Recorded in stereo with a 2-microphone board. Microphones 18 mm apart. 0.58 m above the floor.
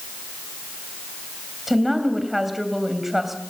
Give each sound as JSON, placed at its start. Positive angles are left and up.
{"t": 1.7, "sound": "a woman speaking", "side_deg": -10, "distance_m": 3.0}